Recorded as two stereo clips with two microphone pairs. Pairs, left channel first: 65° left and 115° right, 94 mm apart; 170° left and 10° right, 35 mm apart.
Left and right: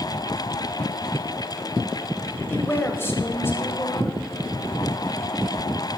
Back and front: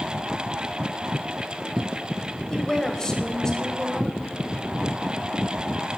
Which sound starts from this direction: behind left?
A woman speaking, at 2.5 s.